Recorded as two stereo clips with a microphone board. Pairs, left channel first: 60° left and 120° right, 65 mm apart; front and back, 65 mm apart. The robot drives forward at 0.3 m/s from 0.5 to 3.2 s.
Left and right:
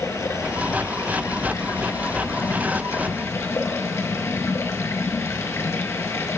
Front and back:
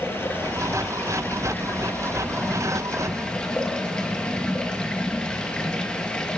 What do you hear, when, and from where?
0.0 s running water: 40° left, 2 m; by 6.4 s 70° left, 1.7 m